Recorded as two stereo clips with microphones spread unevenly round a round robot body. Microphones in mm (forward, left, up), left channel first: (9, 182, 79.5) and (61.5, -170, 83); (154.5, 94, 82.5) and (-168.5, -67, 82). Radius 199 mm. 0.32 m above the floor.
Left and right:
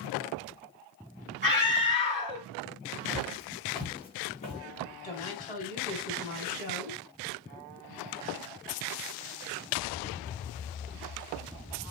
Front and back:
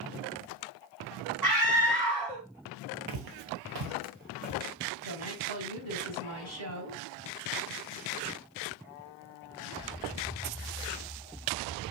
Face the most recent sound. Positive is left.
turn(degrees=165)